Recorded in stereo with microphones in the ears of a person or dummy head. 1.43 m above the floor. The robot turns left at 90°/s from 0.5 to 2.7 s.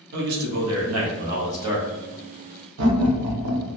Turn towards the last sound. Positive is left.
turn(degrees=-75)  # may be behind; listen again after turning